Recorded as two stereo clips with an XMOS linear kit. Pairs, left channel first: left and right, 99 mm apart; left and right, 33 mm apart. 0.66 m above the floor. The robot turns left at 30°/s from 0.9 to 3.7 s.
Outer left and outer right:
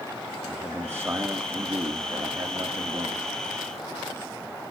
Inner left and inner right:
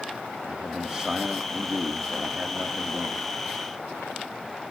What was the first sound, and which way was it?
A man speaking, 35° right.